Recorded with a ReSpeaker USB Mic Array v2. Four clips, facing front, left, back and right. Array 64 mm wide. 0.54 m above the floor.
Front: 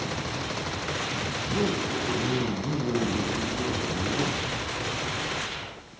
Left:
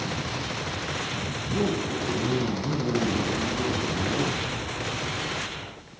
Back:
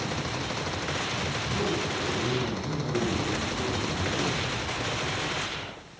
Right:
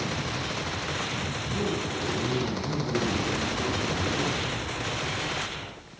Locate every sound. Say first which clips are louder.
1.4 s a zipper: left 5 dB, front 3 dB; 45° left, 9.5 m